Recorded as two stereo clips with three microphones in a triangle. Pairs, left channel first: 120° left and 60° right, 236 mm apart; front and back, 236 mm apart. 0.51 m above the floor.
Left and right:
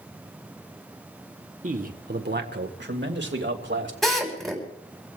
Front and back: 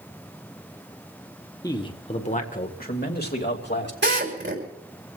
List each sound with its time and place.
1.6 s a man speaking: 60° right, 1.4 m; by 3.9 s 35° right, 3 m
4.0 s a drill: 150° right, 4 m